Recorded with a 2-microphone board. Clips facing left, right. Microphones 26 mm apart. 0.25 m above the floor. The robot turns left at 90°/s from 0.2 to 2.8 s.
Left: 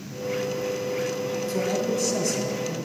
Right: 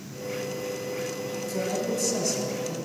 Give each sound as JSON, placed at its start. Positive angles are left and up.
{"t": 1.5, "sound": "a man speaking", "azimuth_deg": 65, "distance_m": 1.6}